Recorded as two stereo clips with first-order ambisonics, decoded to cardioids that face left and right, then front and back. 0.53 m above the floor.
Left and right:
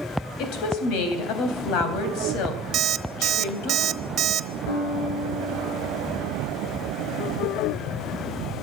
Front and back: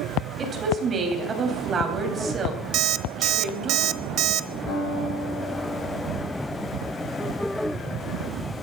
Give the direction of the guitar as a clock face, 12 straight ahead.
10 o'clock.